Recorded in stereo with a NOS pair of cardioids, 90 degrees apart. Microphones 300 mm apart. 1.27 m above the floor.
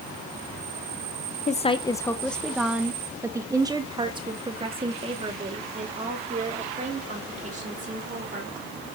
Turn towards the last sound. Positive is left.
turn(degrees=-25)